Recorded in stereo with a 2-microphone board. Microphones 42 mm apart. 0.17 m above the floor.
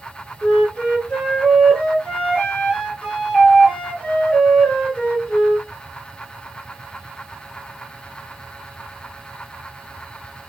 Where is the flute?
30° left (ahead or behind), 2.5 m.